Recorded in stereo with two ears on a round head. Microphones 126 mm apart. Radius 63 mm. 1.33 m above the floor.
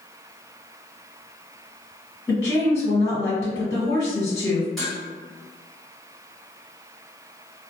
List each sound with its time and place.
2.3 s a woman speaking: 30° left (ahead or behind), 1.5 m
4.8 s dishes clattering: centre (ahead or behind), 1.2 m